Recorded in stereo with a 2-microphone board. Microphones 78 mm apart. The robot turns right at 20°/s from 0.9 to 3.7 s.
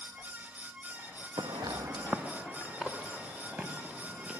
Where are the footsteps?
75° right (ahead or behind), 0.7 m; by 4.3 s 20° right (ahead or behind), 4 m.